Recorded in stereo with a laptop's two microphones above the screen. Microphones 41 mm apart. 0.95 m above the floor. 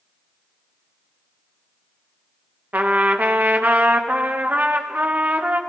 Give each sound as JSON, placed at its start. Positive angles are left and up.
{"t": 2.7, "sound": "a trumpet", "side_deg": -40, "distance_m": 1.1}